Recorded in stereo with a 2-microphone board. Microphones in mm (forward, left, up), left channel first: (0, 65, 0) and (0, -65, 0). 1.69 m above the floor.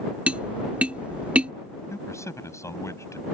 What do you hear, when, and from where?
0.3 s tapping: 10° right (ahead or behind)
1.9 s a man speaking: 20° left (ahead or behind)